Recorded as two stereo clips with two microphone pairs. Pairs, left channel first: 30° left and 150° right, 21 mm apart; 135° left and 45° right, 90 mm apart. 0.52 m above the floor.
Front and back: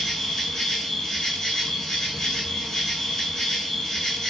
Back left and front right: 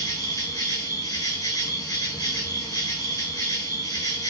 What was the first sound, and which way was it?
An insect, 95° left.